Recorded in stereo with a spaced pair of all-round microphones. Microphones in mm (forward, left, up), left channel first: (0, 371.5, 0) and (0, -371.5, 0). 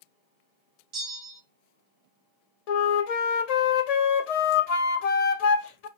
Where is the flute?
60° left (ahead or behind), 0.5 m.